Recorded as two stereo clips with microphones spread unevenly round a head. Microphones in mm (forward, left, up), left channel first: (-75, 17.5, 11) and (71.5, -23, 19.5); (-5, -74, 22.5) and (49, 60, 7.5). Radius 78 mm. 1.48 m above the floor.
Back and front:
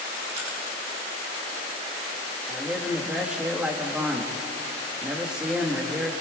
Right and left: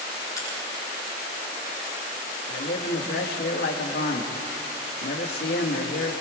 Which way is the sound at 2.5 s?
100° right.